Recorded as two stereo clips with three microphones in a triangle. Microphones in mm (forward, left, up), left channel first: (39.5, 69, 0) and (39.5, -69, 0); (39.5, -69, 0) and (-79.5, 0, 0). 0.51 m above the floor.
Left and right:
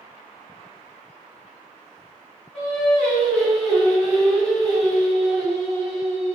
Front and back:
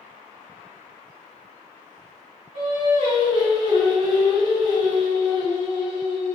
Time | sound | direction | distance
2.5 | singing | 170° left | 1.4 m